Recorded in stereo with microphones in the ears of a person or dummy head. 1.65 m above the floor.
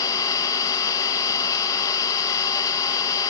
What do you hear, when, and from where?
0.0 s an engine running: 20° left (ahead or behind), 1.6 m